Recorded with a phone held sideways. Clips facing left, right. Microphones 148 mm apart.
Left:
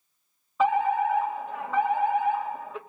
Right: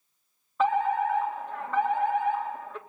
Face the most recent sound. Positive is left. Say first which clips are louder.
# left 2 dB
turn(degrees=5)  # may be behind; listen again after turning